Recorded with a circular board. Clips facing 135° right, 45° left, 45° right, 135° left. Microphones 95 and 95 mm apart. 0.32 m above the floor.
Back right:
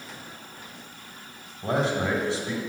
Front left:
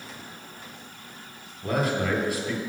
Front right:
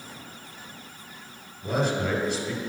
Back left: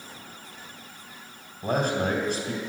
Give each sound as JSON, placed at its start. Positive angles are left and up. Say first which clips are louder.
{"t": 1.6, "sound": "a man speaking", "louder": "back right 1 dB, back left 1 dB", "azimuth_deg": 170, "distance_m": 2.5}